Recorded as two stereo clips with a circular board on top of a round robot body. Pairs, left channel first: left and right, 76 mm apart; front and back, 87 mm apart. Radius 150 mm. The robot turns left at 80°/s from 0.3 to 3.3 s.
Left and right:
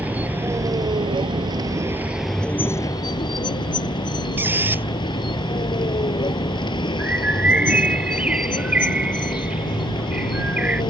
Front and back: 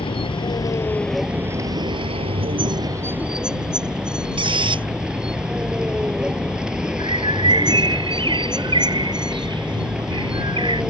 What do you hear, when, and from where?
0.0 s a vehicle: 20° right; by 10.9 s 100° left
4.4 s a squeak: 155° right
7.0 s a bird: 165° right